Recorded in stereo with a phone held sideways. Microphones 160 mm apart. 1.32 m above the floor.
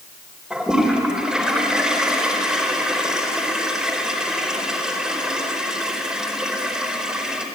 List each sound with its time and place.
0.5 s a toilet flushing: 5° right (ahead or behind), 4.5 m